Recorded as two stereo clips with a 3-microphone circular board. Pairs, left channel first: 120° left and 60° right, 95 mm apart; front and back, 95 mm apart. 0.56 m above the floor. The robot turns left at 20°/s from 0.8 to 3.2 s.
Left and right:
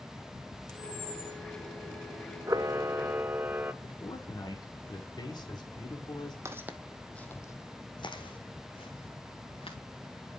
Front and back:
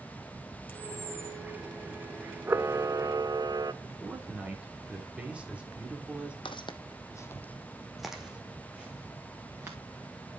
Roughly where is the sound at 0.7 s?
Left.